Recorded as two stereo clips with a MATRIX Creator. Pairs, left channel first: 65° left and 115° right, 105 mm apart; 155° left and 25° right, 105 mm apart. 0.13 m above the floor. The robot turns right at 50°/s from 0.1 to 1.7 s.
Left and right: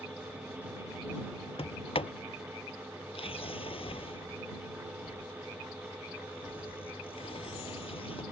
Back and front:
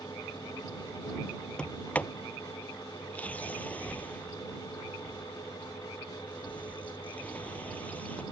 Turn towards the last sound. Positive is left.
turn(degrees=85)